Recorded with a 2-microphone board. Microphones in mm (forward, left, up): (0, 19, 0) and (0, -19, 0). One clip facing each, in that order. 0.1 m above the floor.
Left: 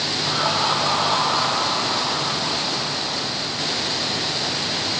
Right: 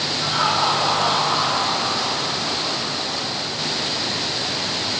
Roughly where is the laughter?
Right.